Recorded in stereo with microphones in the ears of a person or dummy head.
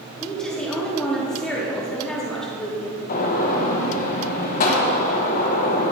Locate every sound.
0.2 s a woman speaking: 5° left (ahead or behind), 2 m
3.1 s a gunshot: 50° left (ahead or behind), 1.4 m